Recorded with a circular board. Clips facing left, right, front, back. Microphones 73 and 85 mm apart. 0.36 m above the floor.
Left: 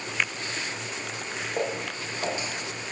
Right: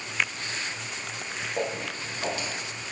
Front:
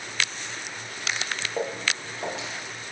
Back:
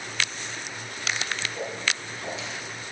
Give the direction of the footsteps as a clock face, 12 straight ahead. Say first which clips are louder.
Left 1 dB, front 2 dB; 11 o'clock.